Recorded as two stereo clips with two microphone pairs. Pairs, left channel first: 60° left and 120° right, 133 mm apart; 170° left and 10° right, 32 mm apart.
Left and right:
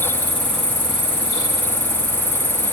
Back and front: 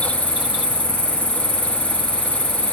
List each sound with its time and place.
0.0 s an insect: 135° left, 6 m